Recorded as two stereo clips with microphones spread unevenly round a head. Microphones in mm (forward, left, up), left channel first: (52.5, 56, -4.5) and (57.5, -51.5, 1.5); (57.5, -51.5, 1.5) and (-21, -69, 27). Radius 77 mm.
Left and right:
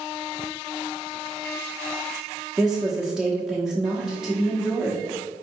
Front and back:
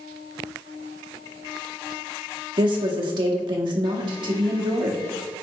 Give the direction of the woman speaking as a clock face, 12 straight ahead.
6 o'clock.